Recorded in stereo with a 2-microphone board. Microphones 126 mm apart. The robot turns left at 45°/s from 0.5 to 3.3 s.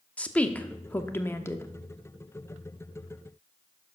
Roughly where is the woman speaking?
Centre.